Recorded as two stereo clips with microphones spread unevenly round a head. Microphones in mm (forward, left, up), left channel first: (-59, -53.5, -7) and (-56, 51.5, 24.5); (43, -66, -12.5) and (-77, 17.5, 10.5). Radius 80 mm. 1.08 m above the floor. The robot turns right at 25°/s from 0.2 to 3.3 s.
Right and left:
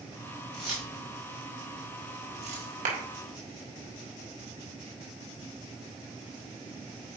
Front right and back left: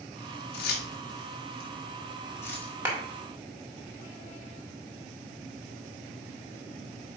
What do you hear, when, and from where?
0.5 s keys jangling: 5° right, 1.5 m; by 2.7 s 50° left, 1.5 m
2.9 s a clap: 70° left, 1.6 m; by 3.0 s 75° left, 1.6 m